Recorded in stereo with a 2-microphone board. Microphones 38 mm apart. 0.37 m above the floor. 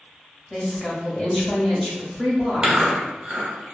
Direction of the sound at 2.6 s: 25° right (ahead or behind).